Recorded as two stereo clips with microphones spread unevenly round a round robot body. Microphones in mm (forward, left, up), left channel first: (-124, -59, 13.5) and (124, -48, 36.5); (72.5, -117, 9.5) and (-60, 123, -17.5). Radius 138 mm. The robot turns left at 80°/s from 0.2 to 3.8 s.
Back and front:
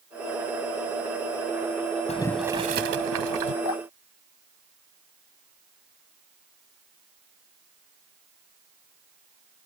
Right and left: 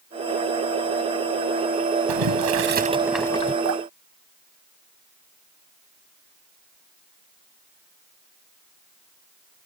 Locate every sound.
2.1 s boiling: 115° left; by 3.5 s 5° right
3.6 s dripping: 165° left; by 5.3 s 150° left